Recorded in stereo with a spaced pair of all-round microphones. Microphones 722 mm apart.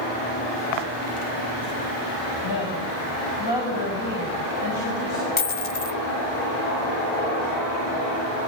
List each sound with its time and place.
2.4 s a woman speaking: 30° left (ahead or behind), 6.5 m
5.4 s a dropped coin: 60° left (ahead or behind), 1.1 m